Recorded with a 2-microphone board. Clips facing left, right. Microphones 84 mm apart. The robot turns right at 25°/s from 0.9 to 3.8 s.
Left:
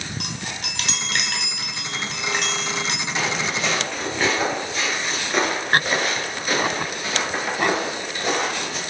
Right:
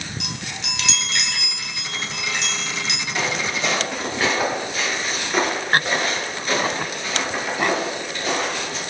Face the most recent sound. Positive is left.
turn(degrees=15)  # may be behind; listen again after turning